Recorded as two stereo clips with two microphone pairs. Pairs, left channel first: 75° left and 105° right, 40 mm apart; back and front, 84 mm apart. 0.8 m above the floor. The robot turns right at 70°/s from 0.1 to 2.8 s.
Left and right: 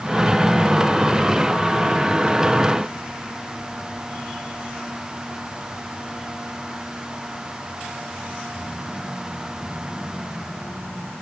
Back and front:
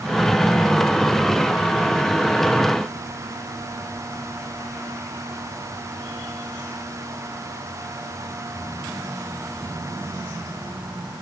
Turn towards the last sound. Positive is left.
No sound to turn to.